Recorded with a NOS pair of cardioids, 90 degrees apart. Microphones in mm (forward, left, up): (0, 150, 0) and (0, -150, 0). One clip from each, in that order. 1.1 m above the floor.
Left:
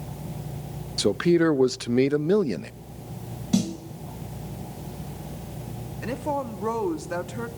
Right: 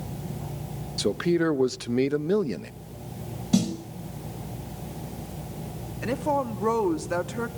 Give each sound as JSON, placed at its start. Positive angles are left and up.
{"t": 1.0, "sound": "a man speaking", "azimuth_deg": 15, "distance_m": 0.6}
{"t": 3.5, "sound": "a snare drum", "azimuth_deg": 0, "distance_m": 5.0}
{"t": 6.0, "sound": "a woman speaking", "azimuth_deg": -10, "distance_m": 2.0}